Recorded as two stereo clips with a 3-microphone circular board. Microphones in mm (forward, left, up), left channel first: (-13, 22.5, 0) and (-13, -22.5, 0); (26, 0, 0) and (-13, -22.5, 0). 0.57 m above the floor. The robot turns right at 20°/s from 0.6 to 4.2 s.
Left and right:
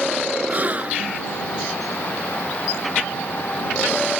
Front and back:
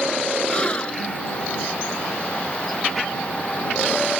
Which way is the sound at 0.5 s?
35° right.